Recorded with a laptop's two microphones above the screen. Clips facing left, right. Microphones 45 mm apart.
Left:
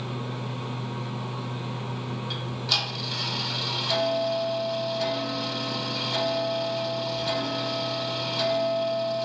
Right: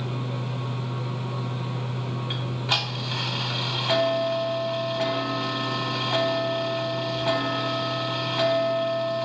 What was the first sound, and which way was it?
A fan, 5° left (ahead or behind).